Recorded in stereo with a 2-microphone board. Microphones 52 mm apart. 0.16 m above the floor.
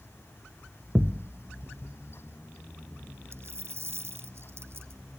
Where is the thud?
45° right (ahead or behind).